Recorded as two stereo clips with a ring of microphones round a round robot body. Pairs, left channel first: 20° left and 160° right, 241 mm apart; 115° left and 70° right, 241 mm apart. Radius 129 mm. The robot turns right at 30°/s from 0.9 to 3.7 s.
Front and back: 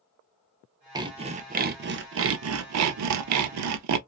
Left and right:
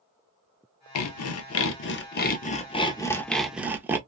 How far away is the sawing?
About 0.5 m.